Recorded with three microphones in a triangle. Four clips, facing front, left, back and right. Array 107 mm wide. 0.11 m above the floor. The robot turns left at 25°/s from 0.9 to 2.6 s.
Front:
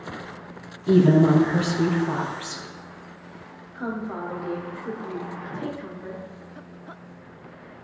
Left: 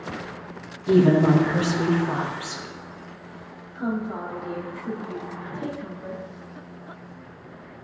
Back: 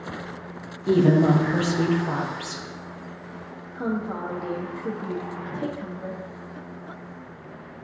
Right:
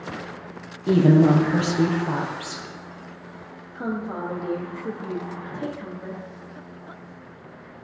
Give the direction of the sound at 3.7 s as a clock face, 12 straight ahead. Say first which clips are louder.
Left 1 dB, back 2 dB; 5 o'clock.